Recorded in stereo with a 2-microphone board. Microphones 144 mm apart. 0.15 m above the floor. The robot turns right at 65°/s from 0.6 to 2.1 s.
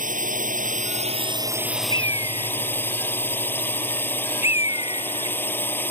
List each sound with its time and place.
0.0 s a drone: 80° right; by 5.9 s 15° left
1.9 s a bird: 30° left (ahead or behind); by 5.4 s 45° left (ahead or behind)